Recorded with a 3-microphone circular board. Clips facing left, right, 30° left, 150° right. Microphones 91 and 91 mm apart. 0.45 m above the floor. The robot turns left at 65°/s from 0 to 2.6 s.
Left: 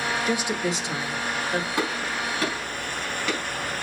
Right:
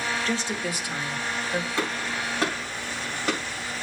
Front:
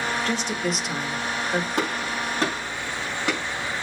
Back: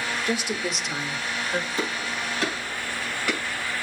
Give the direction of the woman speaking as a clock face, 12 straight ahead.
7 o'clock.